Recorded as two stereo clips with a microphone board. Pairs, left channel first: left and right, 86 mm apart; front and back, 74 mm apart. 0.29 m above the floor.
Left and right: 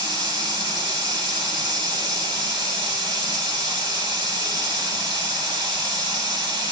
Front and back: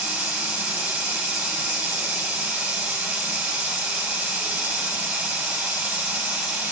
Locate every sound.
0.0 s running water: 110° right, 7 m